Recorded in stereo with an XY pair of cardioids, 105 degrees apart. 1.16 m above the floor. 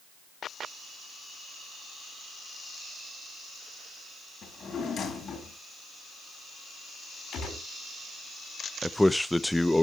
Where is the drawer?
55° left, 3.5 m.